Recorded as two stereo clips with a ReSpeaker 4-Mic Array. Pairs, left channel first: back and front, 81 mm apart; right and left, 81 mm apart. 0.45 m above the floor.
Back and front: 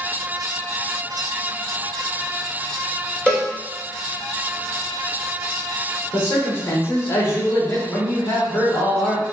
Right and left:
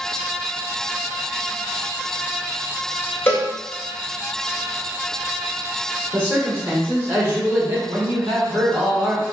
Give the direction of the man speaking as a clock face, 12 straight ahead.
7 o'clock.